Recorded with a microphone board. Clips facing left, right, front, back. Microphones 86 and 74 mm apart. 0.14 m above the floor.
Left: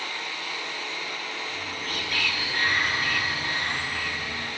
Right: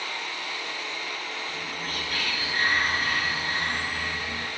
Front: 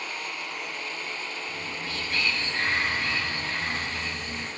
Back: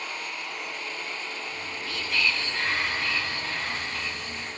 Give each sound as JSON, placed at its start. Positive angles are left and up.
{"t": 1.5, "sound": "whispering", "azimuth_deg": -45, "distance_m": 2.5}